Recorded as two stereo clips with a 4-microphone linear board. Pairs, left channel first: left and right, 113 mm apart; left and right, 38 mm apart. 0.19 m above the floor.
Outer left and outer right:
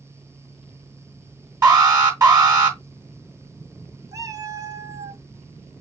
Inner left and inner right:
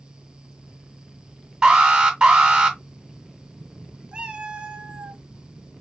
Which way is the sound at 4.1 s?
30° right (ahead or behind).